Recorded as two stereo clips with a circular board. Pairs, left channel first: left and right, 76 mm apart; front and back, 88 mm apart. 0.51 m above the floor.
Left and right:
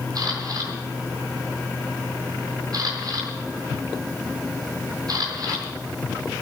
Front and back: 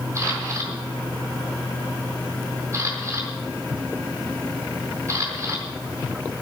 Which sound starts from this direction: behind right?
A camera shutter, at 0.1 s.